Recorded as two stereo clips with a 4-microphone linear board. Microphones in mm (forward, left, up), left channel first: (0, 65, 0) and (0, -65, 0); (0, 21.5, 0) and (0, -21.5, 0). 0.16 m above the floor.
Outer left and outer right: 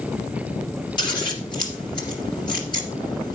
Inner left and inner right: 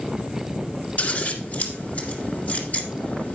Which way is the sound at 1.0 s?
35° left (ahead or behind).